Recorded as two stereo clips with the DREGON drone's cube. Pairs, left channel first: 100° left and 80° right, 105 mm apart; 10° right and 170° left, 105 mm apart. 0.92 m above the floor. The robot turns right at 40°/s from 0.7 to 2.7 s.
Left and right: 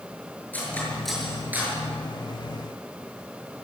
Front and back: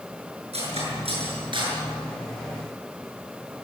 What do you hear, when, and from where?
0.5 s cutlery clinking: 175° left, 7.5 m; by 1.8 s 145° right, 7.5 m